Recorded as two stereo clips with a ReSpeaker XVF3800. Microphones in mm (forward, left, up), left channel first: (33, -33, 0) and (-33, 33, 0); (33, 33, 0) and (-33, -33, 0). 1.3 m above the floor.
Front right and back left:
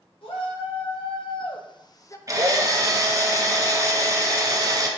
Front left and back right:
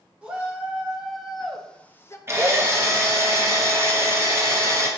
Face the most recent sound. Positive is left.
turn(degrees=170)